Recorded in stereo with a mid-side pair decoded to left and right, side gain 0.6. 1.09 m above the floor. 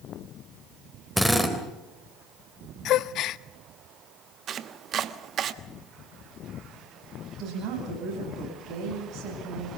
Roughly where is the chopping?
Ahead right.